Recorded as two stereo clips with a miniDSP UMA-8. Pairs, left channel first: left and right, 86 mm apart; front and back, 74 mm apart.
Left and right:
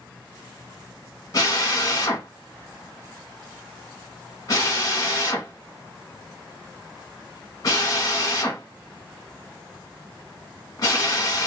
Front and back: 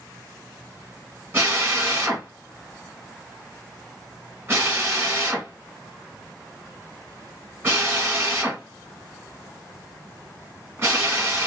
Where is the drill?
130° left, 1.2 m.